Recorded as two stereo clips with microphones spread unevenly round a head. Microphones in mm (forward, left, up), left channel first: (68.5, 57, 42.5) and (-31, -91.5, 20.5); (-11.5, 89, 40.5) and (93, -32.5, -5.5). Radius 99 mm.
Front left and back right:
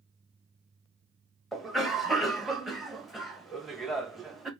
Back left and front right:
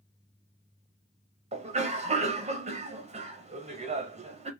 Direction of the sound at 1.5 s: 40° right.